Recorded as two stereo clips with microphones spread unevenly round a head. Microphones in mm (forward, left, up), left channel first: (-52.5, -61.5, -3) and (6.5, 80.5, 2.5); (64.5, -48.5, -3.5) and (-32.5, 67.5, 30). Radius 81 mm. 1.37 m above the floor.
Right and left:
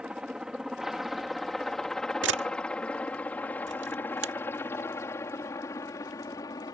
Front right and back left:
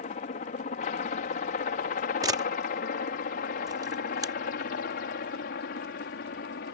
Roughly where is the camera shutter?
Ahead left.